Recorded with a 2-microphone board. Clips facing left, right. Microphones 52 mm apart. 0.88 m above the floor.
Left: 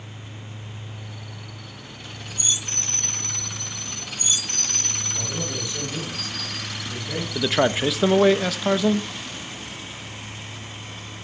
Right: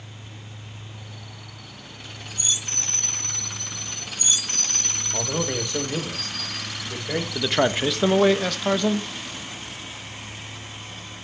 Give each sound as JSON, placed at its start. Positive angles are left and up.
{"t": 5.1, "sound": "a man speaking", "side_deg": -75, "distance_m": 3.0}
{"t": 7.3, "sound": "a man speaking", "side_deg": 0, "distance_m": 0.7}